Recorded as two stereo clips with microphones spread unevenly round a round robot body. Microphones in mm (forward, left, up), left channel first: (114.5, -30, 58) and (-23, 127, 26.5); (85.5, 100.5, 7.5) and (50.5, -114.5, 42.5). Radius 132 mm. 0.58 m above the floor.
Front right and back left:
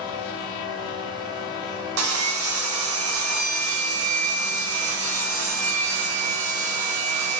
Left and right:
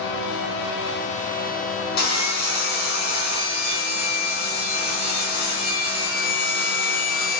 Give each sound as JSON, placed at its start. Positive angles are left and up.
{"t": 2.0, "sound": "sawing", "azimuth_deg": 135, "distance_m": 3.0}